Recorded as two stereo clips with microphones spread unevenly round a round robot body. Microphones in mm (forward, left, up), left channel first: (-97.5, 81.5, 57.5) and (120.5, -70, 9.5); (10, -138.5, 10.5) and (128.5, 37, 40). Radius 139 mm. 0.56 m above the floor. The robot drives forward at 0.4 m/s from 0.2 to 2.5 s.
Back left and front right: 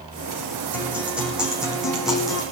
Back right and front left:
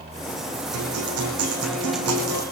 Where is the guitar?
50° left, 7 m; by 2.4 s 55° left, 6.5 m.